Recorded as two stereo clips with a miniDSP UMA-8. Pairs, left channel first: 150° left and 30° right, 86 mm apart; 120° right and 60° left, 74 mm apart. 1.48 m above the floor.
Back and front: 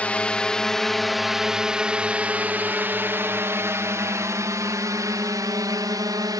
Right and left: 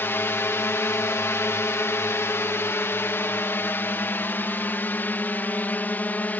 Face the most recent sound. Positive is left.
turn(degrees=-55)